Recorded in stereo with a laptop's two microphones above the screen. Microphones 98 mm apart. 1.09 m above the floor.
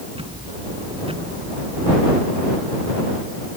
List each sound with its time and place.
0.1 s ticking: 70° right (ahead or behind)